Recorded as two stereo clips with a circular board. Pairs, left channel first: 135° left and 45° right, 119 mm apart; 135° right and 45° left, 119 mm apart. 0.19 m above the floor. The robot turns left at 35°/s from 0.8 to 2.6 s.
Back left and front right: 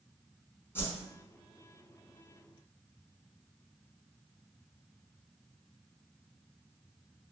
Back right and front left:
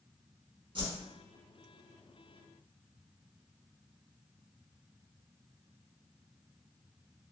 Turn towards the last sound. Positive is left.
turn(degrees=5)